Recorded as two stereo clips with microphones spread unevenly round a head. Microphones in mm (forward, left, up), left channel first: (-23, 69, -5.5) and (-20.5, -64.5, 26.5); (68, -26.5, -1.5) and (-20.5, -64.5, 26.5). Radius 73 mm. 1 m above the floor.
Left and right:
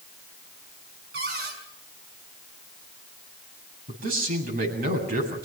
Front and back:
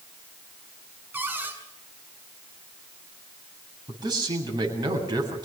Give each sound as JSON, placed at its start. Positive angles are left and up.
{"t": 1.1, "sound": "a cupboard door", "azimuth_deg": -90, "distance_m": 6.5}
{"t": 3.9, "sound": "a man speaking", "azimuth_deg": -110, "distance_m": 8.0}